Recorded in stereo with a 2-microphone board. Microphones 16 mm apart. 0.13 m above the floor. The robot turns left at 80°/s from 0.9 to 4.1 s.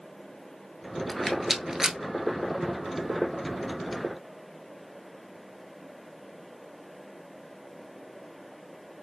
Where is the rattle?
20° left (ahead or behind), 0.5 m; by 2.0 s 45° right (ahead or behind), 0.5 m.